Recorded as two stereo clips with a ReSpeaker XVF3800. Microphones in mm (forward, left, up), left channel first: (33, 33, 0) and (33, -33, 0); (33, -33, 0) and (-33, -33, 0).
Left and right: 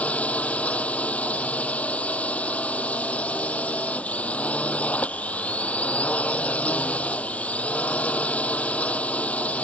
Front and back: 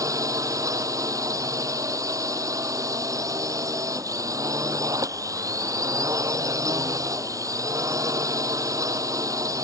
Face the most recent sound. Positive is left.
turn(degrees=155)